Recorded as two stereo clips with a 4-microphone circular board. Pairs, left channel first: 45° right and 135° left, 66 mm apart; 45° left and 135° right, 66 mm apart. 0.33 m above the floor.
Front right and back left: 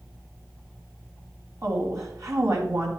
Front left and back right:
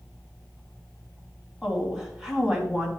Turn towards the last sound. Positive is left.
turn(degrees=150)